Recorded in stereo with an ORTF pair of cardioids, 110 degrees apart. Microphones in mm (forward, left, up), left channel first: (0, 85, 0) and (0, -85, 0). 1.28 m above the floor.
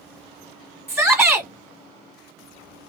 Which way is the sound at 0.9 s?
5° right.